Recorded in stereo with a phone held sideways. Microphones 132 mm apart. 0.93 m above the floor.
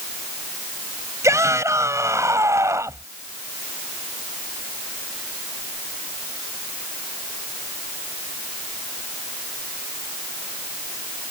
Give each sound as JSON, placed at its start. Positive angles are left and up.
{"t": 1.2, "sound": "a shout", "side_deg": -25}